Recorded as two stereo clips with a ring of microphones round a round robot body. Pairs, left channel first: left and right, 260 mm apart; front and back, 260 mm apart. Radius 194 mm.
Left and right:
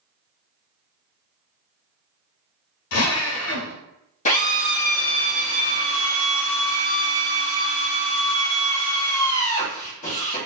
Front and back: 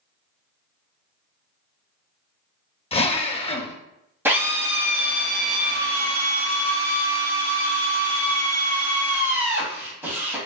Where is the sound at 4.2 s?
105° left, 1.1 m.